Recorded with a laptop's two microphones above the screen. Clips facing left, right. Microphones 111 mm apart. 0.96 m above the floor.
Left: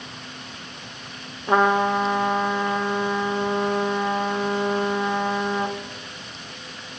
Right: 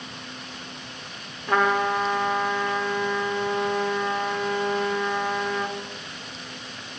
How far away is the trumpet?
About 0.6 m.